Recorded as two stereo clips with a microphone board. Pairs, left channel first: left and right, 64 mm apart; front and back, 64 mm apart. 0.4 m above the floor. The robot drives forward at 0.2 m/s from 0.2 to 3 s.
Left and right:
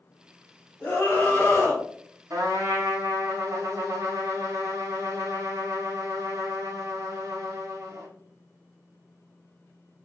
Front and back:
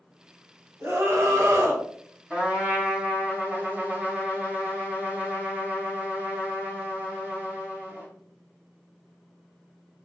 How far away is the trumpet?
About 1.2 m.